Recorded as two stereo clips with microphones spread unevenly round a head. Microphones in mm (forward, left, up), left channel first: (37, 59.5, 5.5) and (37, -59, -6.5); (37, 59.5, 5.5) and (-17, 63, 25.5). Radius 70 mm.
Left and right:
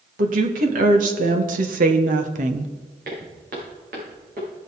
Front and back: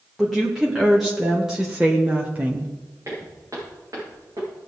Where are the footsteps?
120° right, 6 m; by 4.5 s 125° right, 6 m.